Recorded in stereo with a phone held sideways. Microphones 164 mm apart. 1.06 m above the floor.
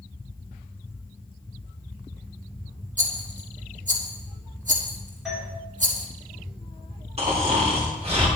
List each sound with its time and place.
3.0 s a rattle: 50° right (ahead or behind), 1.9 m
5.2 s a doorbell: centre (ahead or behind), 4 m
7.2 s snoring: 40° right (ahead or behind), 3 m